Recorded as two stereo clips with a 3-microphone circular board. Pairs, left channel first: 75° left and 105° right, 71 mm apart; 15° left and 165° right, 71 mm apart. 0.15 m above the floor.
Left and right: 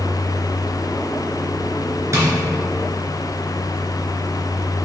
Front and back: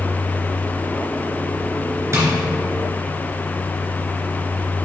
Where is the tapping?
135° right, 2.5 m.